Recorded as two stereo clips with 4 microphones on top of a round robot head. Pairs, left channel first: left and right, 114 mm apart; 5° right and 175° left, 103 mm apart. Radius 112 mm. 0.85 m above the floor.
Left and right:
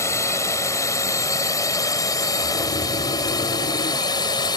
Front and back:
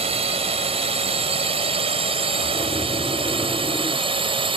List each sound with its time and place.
0.0 s a drone: 155° left; by 4.6 s 140° left
2.4 s snoring: 65° left